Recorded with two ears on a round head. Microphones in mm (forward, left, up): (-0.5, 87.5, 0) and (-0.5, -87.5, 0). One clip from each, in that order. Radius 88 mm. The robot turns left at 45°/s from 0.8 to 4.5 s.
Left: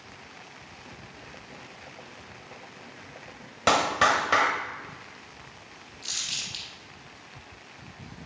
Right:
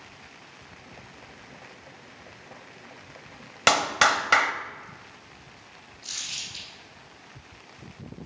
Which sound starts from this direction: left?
Crumpling, at 6.0 s.